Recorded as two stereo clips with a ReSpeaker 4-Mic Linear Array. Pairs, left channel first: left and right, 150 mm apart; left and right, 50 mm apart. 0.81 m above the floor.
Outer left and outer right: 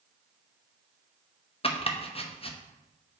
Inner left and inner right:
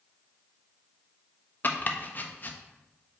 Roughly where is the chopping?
Left.